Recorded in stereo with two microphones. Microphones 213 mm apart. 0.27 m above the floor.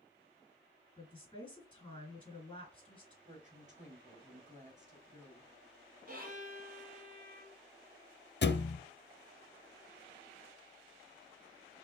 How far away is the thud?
About 0.5 m.